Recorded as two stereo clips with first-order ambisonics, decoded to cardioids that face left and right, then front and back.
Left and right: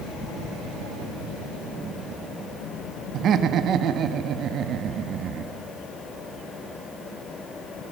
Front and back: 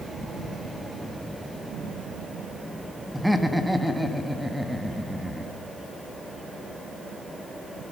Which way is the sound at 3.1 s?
95° right.